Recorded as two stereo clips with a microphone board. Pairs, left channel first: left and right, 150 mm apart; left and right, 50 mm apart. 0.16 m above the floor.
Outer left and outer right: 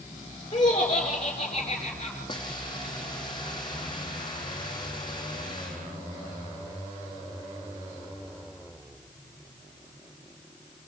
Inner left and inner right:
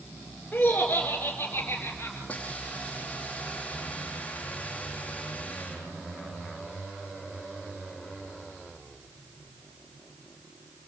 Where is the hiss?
30° left (ahead or behind), 4 m.